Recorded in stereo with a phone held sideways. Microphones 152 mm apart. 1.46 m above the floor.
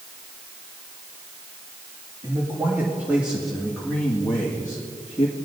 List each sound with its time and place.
2.2 s a man speaking: 25° right (ahead or behind), 2 m; by 5.4 s 40° left (ahead or behind), 1.9 m